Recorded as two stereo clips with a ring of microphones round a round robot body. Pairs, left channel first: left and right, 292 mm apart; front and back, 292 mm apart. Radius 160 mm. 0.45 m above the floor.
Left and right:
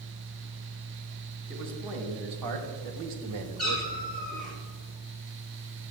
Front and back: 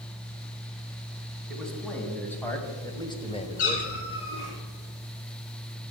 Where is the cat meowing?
Straight ahead, 4.5 m.